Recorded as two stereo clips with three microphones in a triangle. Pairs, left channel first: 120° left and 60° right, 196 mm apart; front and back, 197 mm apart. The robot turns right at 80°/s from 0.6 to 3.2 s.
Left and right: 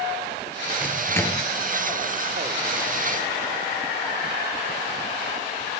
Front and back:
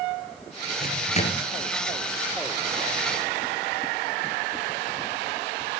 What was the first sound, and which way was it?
A microwave, 15° left.